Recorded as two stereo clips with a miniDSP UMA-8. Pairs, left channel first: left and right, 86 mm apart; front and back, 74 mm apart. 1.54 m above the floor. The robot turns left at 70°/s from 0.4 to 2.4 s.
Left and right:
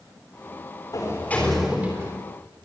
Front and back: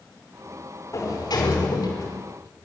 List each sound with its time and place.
0.9 s a sliding door: 45° left, 5.5 m; by 2.2 s 40° right, 5.5 m